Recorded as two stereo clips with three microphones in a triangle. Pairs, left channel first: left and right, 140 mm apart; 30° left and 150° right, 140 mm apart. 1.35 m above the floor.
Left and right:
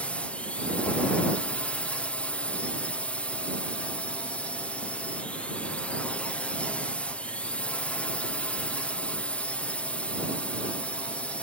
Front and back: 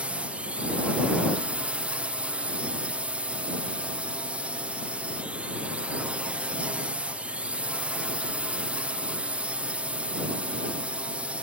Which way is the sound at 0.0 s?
150° left.